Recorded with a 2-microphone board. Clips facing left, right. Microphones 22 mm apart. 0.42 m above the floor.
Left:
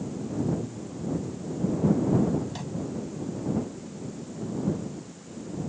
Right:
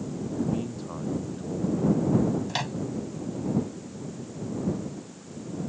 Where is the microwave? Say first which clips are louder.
Right 5 dB; 55° right (ahead or behind).